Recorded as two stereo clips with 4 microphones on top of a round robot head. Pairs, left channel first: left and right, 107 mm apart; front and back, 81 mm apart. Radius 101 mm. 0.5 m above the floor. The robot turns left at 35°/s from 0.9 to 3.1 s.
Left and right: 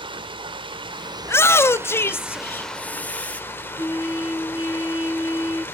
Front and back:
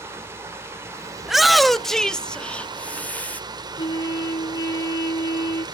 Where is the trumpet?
35° left, 3 m.